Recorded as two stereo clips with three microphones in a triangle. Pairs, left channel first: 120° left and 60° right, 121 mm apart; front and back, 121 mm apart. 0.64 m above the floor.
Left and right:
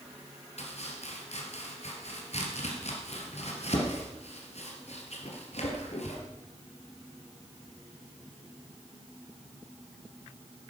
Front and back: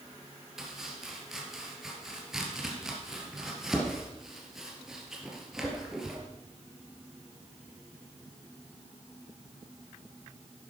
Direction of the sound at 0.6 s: 95° left.